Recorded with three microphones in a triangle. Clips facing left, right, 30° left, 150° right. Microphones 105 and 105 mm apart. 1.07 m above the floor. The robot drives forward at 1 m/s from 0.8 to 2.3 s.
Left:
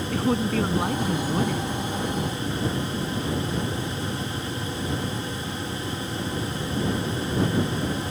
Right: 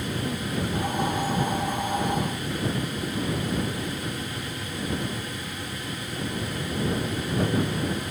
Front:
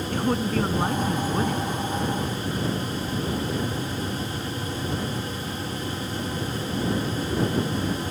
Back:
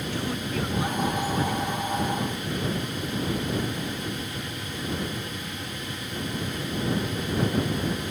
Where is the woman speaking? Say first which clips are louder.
Left 9 dB, front 8 dB; 75° left; by 1.7 s 80° left.